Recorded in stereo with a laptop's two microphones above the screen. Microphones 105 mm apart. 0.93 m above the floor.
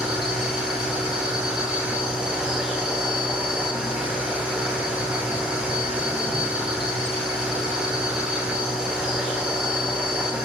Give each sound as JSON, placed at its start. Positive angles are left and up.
{"t": 0.0, "sound": "a machine running", "side_deg": -10, "distance_m": 1.1}